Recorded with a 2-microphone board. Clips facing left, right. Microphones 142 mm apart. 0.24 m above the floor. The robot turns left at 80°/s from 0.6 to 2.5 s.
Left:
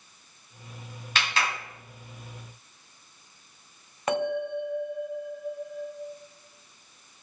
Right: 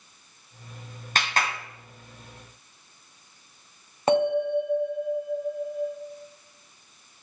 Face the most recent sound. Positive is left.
turn(degrees=-30)  # may be behind; listen again after turning